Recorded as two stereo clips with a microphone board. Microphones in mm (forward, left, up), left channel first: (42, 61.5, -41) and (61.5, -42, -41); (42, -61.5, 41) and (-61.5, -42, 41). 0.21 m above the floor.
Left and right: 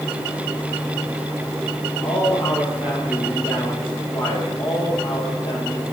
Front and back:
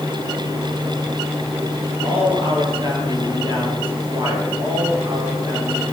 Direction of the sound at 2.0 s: 130° left.